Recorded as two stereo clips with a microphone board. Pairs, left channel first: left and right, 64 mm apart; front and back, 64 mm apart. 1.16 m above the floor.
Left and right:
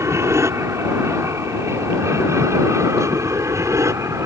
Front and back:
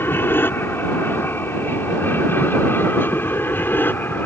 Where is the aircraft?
50° right; by 4.3 s 55° right.